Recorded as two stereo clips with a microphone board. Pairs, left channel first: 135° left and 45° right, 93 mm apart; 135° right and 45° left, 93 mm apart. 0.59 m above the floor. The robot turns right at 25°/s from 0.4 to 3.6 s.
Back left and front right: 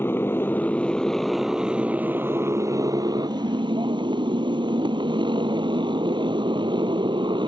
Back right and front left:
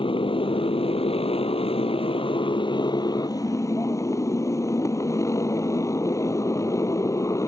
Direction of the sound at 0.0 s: 160° right.